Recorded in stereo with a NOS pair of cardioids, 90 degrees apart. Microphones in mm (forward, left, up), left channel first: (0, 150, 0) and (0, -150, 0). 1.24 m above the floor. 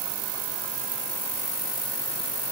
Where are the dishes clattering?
I don't hear dishes clattering.